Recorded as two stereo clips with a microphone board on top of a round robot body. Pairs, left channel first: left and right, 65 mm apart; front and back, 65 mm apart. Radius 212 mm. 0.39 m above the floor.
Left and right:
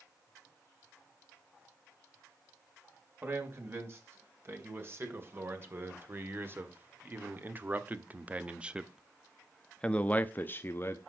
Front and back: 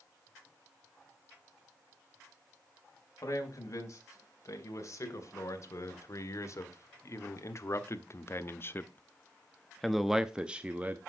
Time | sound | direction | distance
3.2 | a man speaking | 40° right | 3.5 m